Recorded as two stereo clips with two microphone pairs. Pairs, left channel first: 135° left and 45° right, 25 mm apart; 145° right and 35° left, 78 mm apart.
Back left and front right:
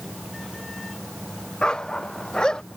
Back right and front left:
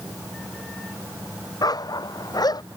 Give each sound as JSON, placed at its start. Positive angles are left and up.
{"t": 1.6, "sound": "a dog barking", "azimuth_deg": -170}